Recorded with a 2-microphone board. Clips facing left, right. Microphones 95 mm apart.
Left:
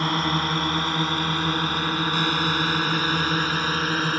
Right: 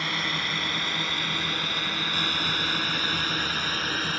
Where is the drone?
45° left (ahead or behind); by 4.2 s 40° left (ahead or behind).